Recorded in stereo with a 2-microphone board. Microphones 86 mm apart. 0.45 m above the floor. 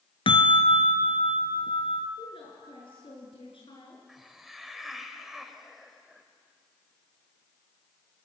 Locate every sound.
0.3 s a bell: 85° left, 1.5 m
2.2 s a woman speaking: 80° left, 5.5 m
4.1 s a hiss: 5° right (ahead or behind), 1.9 m